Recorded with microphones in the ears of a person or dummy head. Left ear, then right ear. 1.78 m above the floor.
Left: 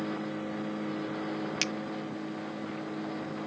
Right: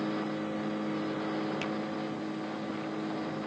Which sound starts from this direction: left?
A finger snap, at 1.6 s.